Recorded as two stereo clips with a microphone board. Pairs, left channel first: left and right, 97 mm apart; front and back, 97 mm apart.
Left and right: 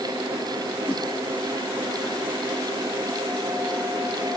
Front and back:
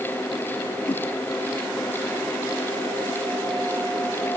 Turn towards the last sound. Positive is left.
turn(degrees=20)